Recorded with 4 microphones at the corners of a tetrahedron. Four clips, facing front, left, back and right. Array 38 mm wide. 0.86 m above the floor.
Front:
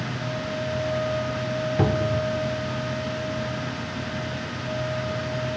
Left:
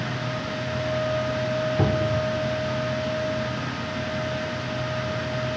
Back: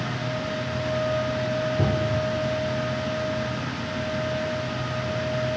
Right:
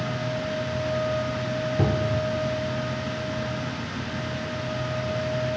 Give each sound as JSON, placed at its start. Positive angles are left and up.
{"t": 1.8, "sound": "a cupboard door", "azimuth_deg": 10, "distance_m": 0.7}